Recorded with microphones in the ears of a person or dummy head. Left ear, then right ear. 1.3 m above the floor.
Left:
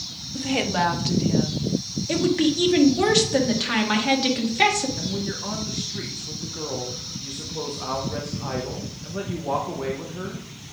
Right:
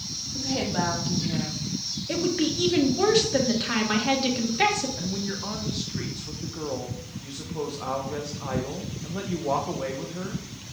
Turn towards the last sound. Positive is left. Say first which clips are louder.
# left 3 dB
turn(degrees=-5)  # may be behind; listen again after turning